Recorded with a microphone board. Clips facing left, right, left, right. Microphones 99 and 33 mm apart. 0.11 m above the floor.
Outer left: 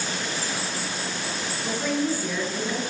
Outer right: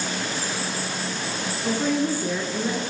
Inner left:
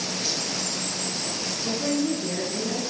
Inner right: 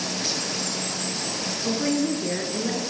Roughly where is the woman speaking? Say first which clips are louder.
Outer right 3 dB, inner right 1 dB; right.